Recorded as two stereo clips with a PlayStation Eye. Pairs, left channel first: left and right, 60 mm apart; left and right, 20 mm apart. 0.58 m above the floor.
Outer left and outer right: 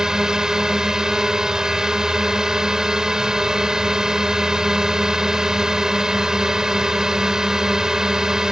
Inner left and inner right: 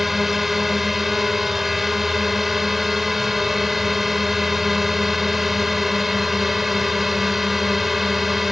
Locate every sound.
0.0 s a drone: 10° right (ahead or behind)